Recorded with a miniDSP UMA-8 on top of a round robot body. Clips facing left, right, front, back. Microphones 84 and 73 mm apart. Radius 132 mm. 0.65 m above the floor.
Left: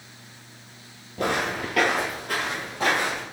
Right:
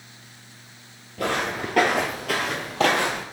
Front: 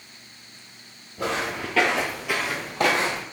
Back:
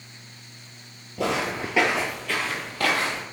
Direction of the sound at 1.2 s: 150° left.